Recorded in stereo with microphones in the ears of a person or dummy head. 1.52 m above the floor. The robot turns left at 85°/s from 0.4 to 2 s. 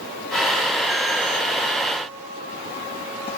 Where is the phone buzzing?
No phone buzzing in this recording.